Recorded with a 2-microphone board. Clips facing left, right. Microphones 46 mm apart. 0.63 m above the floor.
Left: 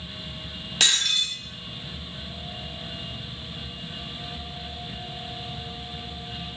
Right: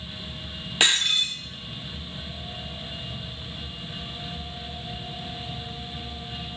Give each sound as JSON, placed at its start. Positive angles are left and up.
{"t": 0.8, "sound": "breaking glass", "side_deg": -20, "distance_m": 1.9}